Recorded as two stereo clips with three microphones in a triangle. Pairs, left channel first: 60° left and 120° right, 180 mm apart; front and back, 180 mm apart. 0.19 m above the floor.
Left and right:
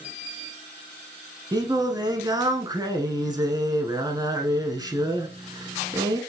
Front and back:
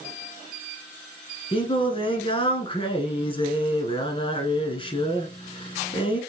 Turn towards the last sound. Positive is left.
turn(degrees=-55)